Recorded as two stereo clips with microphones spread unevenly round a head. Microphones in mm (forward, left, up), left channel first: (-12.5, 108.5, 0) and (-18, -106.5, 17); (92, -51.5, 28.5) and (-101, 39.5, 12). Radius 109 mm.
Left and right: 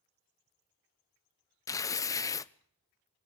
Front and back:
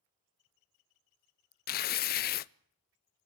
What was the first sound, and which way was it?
Tearing paper, 20° left.